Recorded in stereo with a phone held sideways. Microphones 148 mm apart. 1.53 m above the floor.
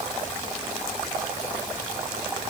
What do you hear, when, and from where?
Only background noise.